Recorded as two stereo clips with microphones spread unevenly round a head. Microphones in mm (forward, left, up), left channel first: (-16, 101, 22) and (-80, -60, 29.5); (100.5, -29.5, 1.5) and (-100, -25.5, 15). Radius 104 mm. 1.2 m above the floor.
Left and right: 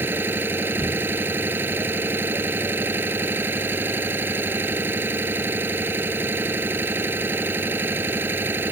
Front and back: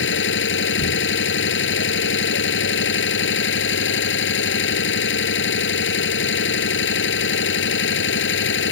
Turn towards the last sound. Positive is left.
turn(degrees=-30)